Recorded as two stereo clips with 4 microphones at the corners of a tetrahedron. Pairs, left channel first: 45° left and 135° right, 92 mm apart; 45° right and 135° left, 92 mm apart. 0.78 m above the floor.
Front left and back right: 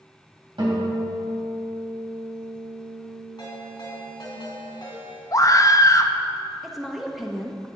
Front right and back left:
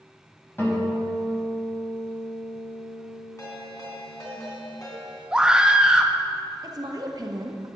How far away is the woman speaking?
About 0.8 m.